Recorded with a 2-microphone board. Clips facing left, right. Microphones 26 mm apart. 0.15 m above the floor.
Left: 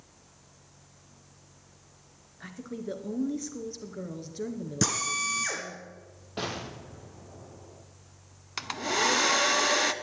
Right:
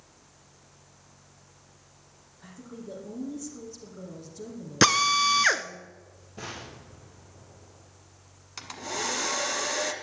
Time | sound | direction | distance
2.4 | a woman speaking | 40° left (ahead or behind) | 2 m
4.8 | a drill | 55° right (ahead or behind) | 0.8 m
6.4 | an explosion | 75° left (ahead or behind) | 3 m
8.6 | a hair dryer | 30° left (ahead or behind) | 0.8 m